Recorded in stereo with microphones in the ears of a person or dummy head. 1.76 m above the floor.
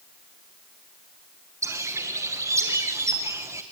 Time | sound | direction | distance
1.6 | a bird | 15° right (ahead or behind) | 1.3 m